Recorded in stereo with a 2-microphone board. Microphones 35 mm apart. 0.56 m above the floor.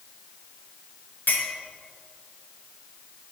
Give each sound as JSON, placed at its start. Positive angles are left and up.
{"t": 1.3, "sound": "a clink", "side_deg": 60, "distance_m": 4.0}